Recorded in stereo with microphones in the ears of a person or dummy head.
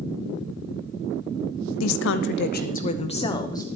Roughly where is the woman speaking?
Left.